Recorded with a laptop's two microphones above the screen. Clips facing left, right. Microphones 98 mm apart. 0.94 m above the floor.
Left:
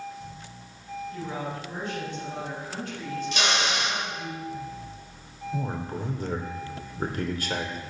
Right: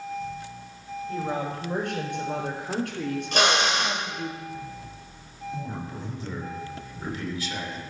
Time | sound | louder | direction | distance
1.1 | a woman speaking | right 6 dB | 80° right | 5.5 m
3.3 | a drill | right 5 dB | 55° right (ahead or behind) | 4 m
5.5 | a man speaking | left 4 dB | 60° left (ahead or behind) | 2.5 m